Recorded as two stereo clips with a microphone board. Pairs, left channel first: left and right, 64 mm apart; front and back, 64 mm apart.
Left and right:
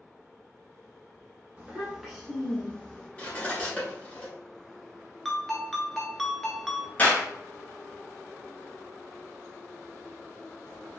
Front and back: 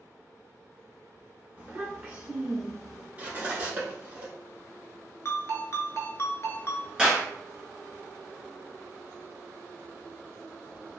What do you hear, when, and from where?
1.6 s a child speaking: 135° right, 0.8 m; by 3.1 s 105° left, 0.8 m
3.2 s cutlery clinking: 140° left, 1.1 m
5.2 s a ringtone: 10° left, 0.6 m
7.0 s a clap: 115° left, 1.1 m